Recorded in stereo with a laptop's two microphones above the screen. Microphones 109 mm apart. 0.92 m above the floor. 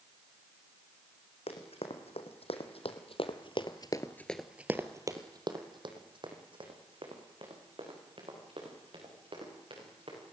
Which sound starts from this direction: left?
Running footsteps, at 1.5 s.